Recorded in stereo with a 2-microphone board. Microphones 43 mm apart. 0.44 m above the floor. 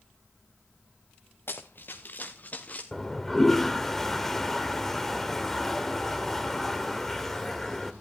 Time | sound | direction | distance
1.5 | running footsteps | 55° left (ahead or behind) | 1.9 m
2.9 | a toilet flushing | 5° left (ahead or behind) | 1.3 m